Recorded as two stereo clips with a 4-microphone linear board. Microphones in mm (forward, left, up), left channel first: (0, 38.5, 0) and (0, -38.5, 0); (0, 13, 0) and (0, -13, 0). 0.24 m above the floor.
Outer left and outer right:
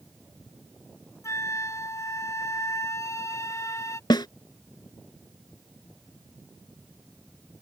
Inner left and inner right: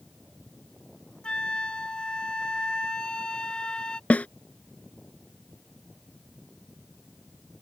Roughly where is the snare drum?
Left.